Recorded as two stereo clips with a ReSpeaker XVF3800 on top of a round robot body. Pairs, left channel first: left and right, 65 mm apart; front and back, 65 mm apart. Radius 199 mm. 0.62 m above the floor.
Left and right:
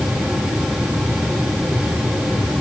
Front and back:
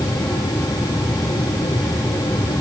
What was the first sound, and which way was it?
Only background noise.